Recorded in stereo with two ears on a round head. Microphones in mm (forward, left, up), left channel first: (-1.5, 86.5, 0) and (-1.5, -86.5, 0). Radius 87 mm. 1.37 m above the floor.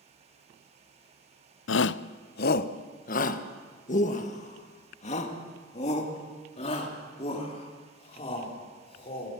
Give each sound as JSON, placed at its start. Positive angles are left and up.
{"t": 1.7, "sound": "a shout", "side_deg": 75, "distance_m": 0.5}